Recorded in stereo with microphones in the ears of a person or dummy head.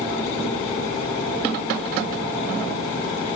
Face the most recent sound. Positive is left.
No sound to turn to.